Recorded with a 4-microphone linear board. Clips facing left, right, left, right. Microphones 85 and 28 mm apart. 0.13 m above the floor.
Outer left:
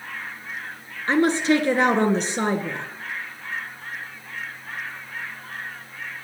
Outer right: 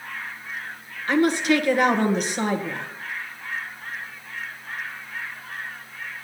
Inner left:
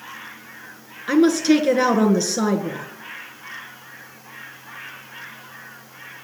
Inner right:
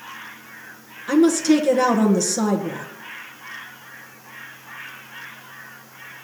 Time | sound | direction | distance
1.1 | a woman speaking | 30° left (ahead or behind) | 1.6 m